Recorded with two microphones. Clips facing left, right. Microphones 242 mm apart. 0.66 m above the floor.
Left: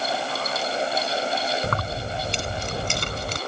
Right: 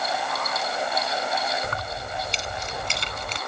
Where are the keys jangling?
65° left (ahead or behind); by 3.4 s 50° left (ahead or behind).